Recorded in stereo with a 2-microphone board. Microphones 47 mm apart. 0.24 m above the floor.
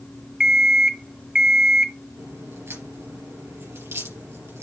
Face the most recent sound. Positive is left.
turn(degrees=-70)  # may be behind; listen again after turning